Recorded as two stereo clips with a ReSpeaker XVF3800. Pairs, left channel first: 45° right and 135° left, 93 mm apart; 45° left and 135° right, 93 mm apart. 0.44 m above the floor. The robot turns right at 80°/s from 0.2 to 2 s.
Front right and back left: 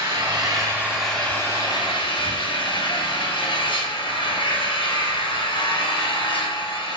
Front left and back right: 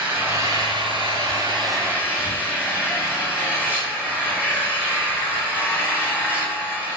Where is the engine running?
155° left, 2.5 m; by 7.0 s 60° right, 2.5 m.